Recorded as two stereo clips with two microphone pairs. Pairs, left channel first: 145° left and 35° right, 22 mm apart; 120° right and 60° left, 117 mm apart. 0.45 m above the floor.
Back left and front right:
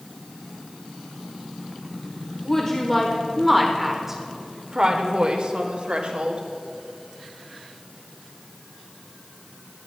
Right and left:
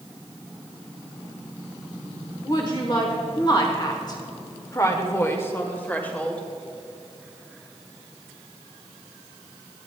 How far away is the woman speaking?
About 1.4 m.